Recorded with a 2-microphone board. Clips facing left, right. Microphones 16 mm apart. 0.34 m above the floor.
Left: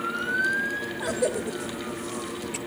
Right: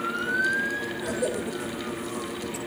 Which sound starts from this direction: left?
A cough, at 1.0 s.